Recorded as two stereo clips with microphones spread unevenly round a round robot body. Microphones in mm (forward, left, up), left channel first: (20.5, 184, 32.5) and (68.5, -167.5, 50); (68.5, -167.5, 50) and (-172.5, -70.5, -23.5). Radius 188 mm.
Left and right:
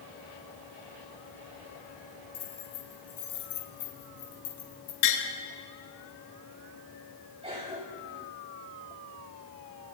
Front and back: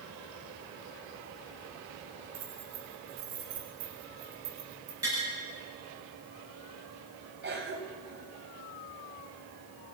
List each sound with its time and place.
2.3 s keys jangling: 125° left, 6 m; by 4.9 s 130° left, 5 m
5.0 s tapping: 75° left, 6 m
7.4 s a cough: 155° right, 4 m